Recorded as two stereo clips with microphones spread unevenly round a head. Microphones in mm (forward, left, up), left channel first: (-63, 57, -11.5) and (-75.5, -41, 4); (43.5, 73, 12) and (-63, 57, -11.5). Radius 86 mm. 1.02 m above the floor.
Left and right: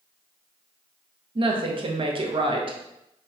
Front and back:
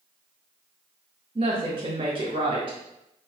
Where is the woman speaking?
130° right, 0.7 m.